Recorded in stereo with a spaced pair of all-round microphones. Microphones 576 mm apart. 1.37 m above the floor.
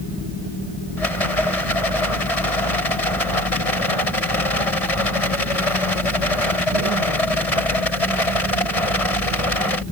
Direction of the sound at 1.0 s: 85° left.